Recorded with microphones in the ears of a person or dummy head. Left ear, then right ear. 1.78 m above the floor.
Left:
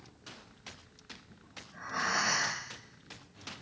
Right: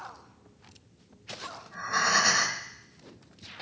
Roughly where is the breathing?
Right.